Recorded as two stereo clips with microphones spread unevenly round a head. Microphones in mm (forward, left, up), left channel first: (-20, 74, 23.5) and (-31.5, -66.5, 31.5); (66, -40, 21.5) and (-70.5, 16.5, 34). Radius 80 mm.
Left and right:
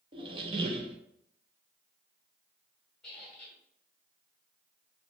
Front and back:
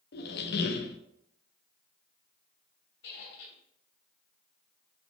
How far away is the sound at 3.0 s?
About 2.5 m.